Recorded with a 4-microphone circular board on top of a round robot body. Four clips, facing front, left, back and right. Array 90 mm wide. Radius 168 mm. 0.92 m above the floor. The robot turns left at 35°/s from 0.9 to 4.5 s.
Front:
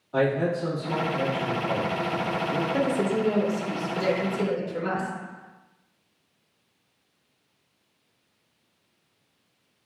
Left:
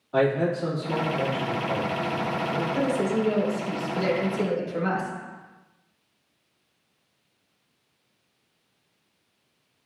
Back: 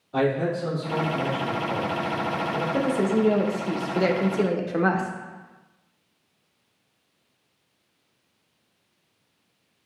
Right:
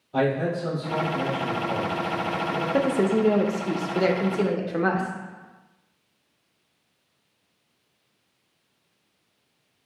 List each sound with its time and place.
0.1 s a man speaking: 80° left, 2 m; by 2.6 s 20° left, 2 m
2.7 s a woman speaking: 85° right, 0.9 m; by 5.1 s 150° right, 0.9 m